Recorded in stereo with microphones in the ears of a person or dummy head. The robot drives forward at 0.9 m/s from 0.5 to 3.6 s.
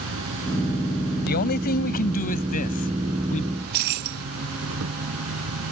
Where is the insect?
70° right (ahead or behind); by 5.7 s 85° right.